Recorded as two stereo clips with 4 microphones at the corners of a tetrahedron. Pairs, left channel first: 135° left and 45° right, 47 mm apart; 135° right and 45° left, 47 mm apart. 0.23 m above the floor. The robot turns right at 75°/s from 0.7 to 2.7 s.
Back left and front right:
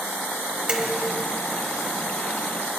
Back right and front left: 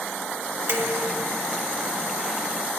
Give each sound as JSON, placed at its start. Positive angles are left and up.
{"t": 0.7, "sound": "dishes clattering", "azimuth_deg": 15, "distance_m": 2.5}